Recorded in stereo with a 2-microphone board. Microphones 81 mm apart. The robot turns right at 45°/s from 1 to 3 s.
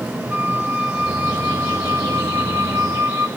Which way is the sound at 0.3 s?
145° right.